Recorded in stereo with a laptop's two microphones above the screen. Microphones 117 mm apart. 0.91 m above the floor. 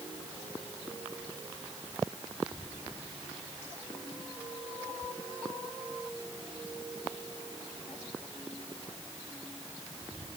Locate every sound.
Only background noise.